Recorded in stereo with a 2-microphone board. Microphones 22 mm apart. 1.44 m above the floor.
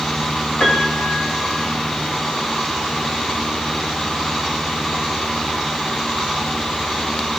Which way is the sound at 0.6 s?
80° left.